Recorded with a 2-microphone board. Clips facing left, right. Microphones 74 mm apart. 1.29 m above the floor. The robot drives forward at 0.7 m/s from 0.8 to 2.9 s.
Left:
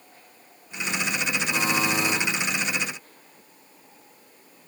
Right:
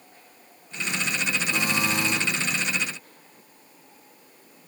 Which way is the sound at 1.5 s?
20° left (ahead or behind).